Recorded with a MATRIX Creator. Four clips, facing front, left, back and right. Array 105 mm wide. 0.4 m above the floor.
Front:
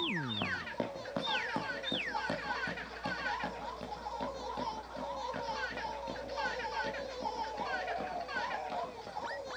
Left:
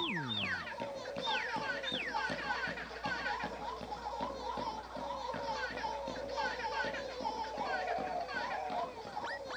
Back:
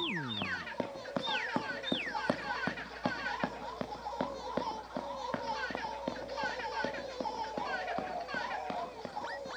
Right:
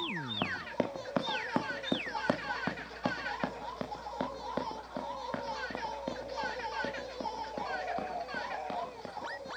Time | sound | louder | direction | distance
0.4 | running footsteps | right 6 dB, front 1 dB | 85° right | 1.9 m